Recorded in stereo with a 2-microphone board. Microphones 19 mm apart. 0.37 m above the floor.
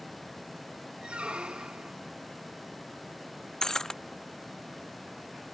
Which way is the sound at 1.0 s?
75° right (ahead or behind).